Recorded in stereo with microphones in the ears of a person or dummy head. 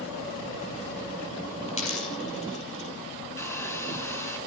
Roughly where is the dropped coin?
Left.